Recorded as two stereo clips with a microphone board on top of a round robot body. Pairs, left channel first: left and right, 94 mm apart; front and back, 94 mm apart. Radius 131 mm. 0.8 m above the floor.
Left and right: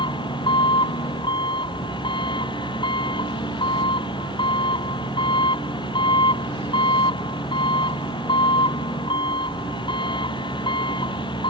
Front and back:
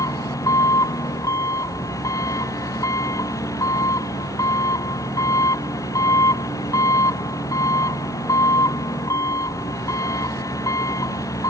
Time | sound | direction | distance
0.0 | an engine running | 55° left | ?